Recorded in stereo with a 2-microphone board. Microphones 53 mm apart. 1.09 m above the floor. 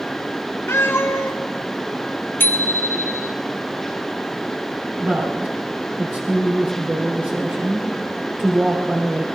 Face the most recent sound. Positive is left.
turn(degrees=-40)  # may be behind; listen again after turning